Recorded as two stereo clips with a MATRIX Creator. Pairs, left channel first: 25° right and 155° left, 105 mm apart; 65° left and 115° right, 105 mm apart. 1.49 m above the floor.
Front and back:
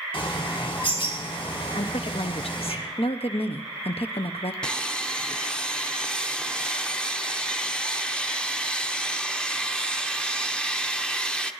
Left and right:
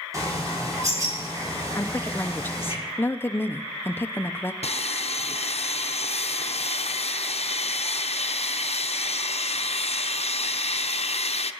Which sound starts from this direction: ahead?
A woman speaking, at 1.8 s.